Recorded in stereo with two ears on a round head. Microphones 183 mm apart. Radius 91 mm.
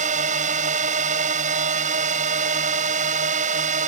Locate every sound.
0.0 s a drone: 35° right (ahead or behind)